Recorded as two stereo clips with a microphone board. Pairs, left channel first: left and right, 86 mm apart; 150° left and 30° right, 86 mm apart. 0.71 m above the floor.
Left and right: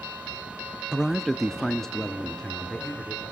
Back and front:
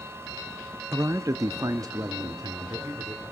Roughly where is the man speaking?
Ahead.